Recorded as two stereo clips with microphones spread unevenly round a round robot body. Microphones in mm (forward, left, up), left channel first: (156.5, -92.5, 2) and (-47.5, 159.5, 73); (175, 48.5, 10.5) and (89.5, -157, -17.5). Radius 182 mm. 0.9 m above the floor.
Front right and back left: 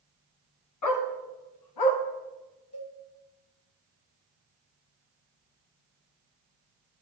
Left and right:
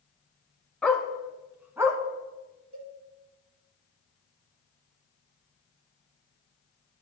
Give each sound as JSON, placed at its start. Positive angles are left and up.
{"t": 0.8, "sound": "a dog barking", "azimuth_deg": -15, "distance_m": 2.0}
{"t": 2.7, "sound": "a cowbell", "azimuth_deg": -100, "distance_m": 3.5}